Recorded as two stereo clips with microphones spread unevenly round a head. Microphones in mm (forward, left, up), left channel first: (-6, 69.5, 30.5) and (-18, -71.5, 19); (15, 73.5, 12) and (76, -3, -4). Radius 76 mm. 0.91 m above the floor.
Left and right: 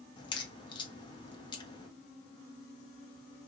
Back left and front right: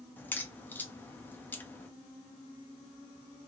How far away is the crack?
About 0.8 m.